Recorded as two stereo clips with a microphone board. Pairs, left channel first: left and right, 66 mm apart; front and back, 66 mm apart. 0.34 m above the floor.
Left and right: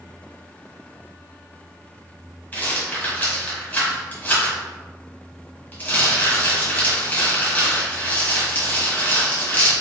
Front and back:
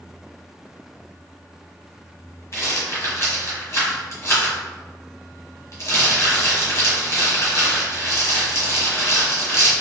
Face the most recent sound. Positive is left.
turn(degrees=35)